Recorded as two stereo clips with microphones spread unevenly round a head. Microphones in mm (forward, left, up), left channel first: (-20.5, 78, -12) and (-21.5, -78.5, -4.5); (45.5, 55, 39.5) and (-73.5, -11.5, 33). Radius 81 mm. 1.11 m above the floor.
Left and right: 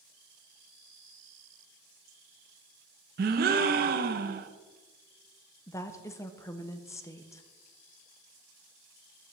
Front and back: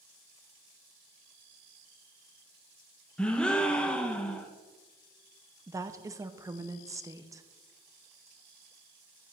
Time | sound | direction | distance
3.2 | a gasp | 55° right | 0.5 m
5.7 | a woman speaking | 155° left | 0.7 m